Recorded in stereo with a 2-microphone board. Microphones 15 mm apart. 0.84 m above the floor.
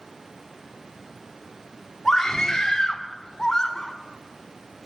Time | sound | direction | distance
2.0 | a scream | 40° left (ahead or behind) | 1.7 m